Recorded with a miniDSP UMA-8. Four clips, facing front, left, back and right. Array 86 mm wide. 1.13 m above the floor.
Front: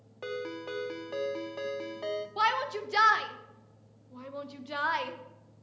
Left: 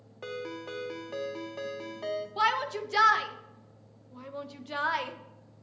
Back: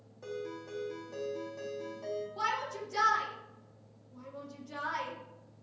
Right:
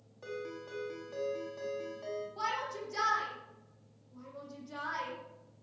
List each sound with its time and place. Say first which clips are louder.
0.2 s a ringtone: left 4 dB, front 4 dB; 35° left, 1.1 m
2.4 s a shout: left 10 dB, front 8 dB; 45° left, 1.2 m